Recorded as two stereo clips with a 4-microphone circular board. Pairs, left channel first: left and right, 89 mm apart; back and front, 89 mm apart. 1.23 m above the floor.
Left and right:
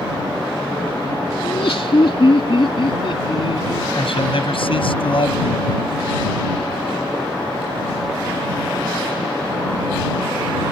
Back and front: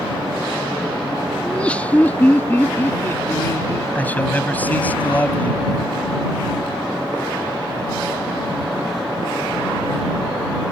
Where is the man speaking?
110° left.